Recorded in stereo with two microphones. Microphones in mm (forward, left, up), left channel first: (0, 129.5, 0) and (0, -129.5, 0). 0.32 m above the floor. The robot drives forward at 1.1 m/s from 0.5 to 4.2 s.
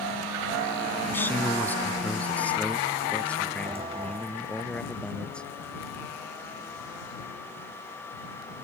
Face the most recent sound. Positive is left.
turn(degrees=5)  # may be behind; listen again after turning